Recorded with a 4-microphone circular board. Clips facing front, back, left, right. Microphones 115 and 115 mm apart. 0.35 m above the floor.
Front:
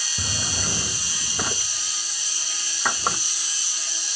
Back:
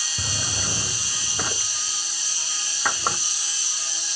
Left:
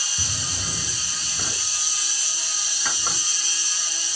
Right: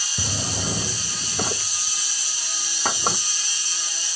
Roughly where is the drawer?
Right.